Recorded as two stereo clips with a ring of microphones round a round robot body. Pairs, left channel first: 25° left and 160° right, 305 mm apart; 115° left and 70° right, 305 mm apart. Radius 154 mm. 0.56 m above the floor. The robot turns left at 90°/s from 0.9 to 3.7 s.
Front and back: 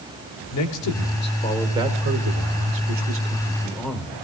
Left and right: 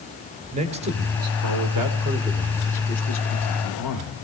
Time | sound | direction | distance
0.5 | a man speaking | straight ahead | 2 m